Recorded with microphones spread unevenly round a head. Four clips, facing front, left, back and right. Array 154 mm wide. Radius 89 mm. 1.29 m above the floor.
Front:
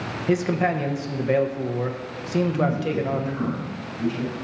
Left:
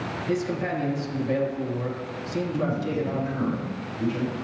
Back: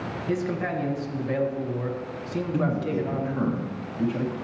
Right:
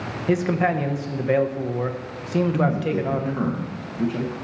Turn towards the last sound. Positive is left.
turn(degrees=-125)